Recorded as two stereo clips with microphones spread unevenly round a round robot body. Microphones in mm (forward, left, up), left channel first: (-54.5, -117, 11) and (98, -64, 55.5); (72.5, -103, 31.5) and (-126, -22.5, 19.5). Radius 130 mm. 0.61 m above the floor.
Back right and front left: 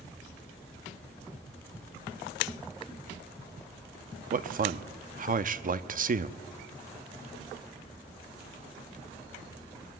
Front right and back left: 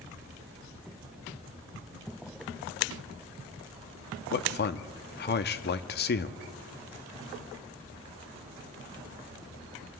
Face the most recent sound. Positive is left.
turn(degrees=-15)